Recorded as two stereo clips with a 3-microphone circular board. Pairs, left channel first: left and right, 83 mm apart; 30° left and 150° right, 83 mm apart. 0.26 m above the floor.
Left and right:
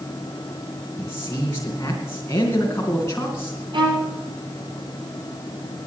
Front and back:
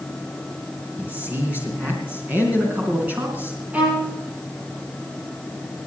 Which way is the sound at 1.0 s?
145° left.